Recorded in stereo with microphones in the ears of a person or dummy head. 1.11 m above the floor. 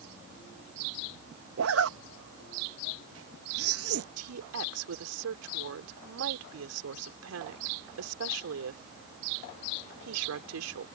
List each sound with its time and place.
1.6 s a zipper: 70° right (ahead or behind)
4.2 s a woman speaking: 85° right